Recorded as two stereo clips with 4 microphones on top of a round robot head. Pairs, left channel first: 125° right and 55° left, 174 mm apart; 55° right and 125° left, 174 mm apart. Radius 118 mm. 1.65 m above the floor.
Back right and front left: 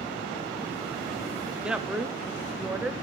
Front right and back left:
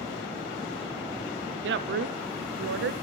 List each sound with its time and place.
1.6 s a woman speaking: 140° left, 0.6 m